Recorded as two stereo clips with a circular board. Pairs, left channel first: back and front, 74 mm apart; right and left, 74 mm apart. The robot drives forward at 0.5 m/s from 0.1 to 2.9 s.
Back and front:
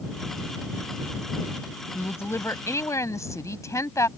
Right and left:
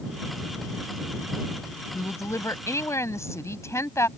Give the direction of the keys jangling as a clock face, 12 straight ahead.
I don't hear keys jangling.